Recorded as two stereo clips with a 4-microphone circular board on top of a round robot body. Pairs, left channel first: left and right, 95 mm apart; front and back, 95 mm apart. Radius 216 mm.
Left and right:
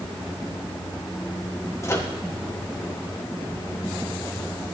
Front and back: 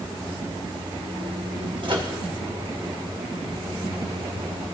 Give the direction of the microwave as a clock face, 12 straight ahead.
7 o'clock.